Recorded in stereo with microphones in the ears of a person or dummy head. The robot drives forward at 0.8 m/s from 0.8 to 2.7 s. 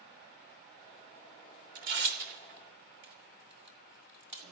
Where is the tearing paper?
55° right (ahead or behind), 1.6 m; by 4.4 s 50° right (ahead or behind), 1.6 m.